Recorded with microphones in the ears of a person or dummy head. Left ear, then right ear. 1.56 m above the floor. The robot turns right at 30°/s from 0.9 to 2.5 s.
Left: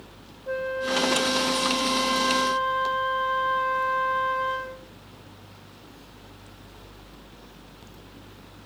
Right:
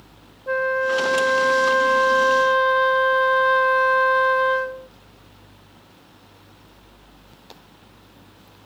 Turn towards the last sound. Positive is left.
turn(degrees=-60)